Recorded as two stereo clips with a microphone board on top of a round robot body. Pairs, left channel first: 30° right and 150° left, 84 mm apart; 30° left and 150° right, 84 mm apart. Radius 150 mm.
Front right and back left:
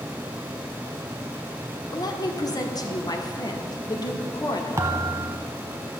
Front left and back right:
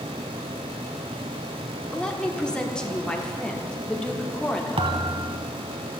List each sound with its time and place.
1.9 s a woman speaking: 50° right, 1.4 m
4.8 s a thud: 150° right, 0.6 m